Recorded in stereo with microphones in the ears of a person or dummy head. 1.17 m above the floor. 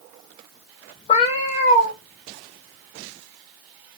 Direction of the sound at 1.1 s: 40° left (ahead or behind).